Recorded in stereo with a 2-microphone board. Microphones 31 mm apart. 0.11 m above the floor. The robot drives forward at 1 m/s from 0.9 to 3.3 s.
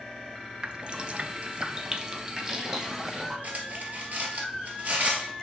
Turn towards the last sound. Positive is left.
turn(degrees=-55)  # may be behind; listen again after turning